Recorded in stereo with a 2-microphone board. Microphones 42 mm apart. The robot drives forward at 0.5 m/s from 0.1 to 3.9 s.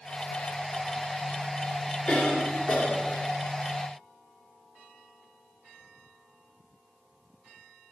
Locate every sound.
2.1 s a cough: 30° left (ahead or behind), 2.5 m; by 3.2 s 25° left (ahead or behind), 3 m